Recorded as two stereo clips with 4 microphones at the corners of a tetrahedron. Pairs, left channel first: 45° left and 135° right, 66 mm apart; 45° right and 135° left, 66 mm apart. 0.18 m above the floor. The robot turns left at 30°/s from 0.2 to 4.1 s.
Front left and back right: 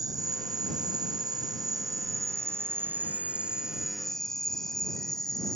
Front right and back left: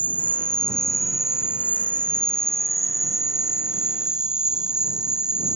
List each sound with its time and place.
0.0 s an insect: 110° right; by 5.6 s 130° left